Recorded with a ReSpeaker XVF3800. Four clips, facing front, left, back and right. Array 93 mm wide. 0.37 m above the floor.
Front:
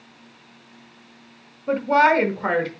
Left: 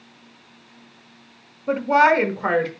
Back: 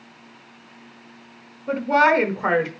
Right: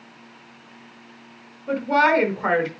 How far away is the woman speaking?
About 0.9 m.